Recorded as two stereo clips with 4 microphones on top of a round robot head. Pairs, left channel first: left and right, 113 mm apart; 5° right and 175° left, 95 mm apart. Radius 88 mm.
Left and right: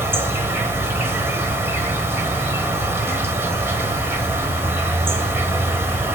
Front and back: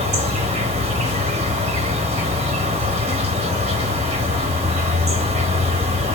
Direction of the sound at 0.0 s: 160° right.